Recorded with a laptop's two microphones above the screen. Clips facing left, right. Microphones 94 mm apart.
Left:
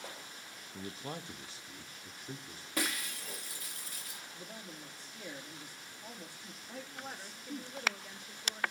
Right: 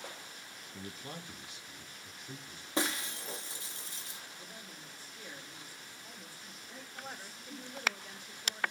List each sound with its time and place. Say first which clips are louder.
0.7 s a man speaking: left 3 dB; 10° left (ahead or behind), 0.5 m; by 2.7 s 40° left (ahead or behind), 2.5 m
2.8 s breaking glass: right 3 dB; 25° right (ahead or behind), 0.8 m
4.3 s a man speaking: left 3 dB; 70° left (ahead or behind), 2.5 m
7.0 s a woman speaking: even; 10° left (ahead or behind), 1.6 m